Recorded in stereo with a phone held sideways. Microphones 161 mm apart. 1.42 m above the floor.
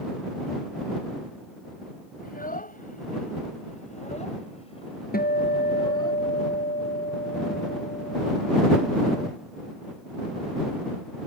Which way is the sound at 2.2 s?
65° left (ahead or behind).